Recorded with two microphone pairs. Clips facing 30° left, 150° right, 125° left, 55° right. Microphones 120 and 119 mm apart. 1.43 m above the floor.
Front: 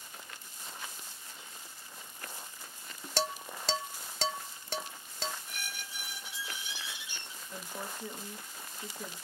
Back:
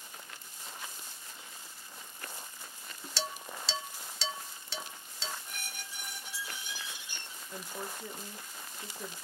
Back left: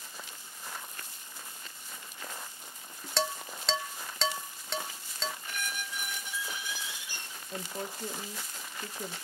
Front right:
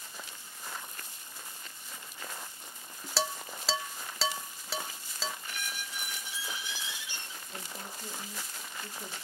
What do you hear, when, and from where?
3.2 s dishes clattering: 30° left, 0.6 m
5.5 s a squeak: 170° left, 1.4 m
7.5 s a woman speaking: 125° left, 0.8 m